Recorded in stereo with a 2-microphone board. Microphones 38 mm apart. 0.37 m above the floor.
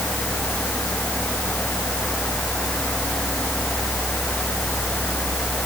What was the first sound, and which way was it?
Only background noise.